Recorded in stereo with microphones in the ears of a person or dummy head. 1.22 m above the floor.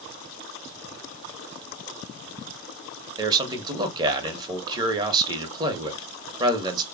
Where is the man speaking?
25° right (ahead or behind), 1.0 m.